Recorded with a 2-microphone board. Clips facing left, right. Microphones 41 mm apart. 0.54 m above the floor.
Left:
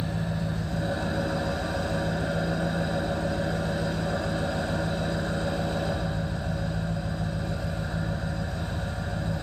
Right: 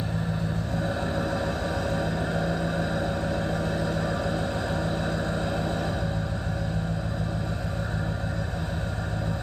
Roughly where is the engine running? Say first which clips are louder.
Right 1 dB; right.